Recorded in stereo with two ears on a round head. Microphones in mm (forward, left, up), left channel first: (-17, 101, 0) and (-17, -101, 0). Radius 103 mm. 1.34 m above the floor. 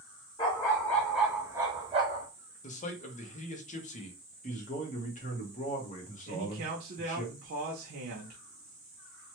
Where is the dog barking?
20° left (ahead or behind), 0.9 m; by 2.3 s 35° right (ahead or behind), 1.0 m.